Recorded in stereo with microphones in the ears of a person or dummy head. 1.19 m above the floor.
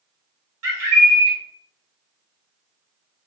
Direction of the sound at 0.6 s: 75° right (ahead or behind).